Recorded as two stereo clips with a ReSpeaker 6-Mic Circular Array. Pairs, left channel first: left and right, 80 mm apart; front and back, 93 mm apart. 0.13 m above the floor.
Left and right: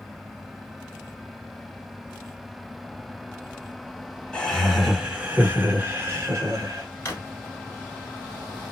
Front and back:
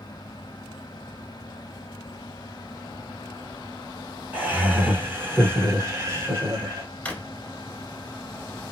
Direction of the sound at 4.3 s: 150° left.